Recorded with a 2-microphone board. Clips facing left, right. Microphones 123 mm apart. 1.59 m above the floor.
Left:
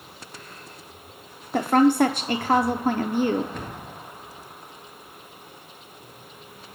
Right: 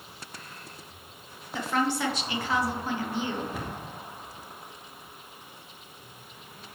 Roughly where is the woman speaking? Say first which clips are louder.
Left 10 dB; left.